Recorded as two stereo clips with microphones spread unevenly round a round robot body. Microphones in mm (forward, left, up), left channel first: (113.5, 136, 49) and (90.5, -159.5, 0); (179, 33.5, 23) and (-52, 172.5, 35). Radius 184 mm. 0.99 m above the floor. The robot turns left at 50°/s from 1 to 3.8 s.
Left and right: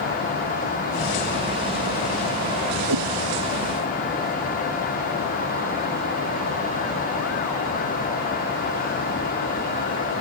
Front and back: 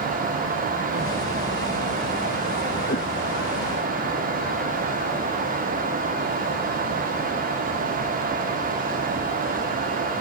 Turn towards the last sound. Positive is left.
turn(degrees=-140)